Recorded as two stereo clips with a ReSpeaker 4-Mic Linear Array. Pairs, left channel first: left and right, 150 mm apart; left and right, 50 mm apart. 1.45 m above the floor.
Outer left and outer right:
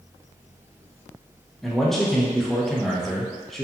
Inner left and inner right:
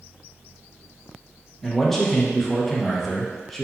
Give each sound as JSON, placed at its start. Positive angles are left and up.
{"t": 1.6, "sound": "a man speaking", "side_deg": 0, "distance_m": 0.5}